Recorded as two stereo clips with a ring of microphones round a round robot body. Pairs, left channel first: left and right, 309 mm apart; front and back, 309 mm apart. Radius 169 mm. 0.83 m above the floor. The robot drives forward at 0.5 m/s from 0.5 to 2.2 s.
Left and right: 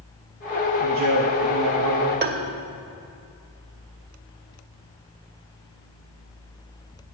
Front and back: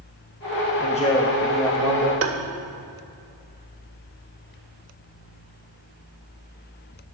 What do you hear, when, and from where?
0.8 s a man speaking: 60° right, 0.9 m; by 2.1 s 115° right, 0.8 m
2.2 s tapping: 145° right, 0.8 m